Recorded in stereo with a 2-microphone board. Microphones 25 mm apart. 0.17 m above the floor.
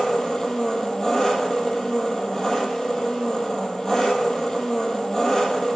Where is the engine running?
25° left (ahead or behind), 1.6 m.